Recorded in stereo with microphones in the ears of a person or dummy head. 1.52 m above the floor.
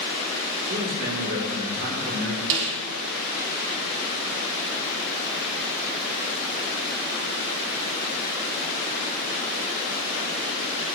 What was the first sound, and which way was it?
A man speaking, 65° right (ahead or behind).